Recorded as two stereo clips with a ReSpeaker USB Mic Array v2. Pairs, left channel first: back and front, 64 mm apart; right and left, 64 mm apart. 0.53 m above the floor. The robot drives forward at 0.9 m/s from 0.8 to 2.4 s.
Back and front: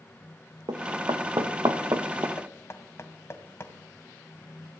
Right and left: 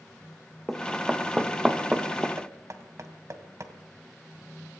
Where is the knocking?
130° left, 2 m.